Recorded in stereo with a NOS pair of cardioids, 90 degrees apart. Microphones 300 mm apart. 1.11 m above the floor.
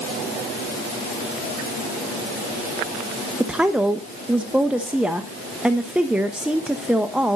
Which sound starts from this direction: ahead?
A woman speaking, at 3.4 s.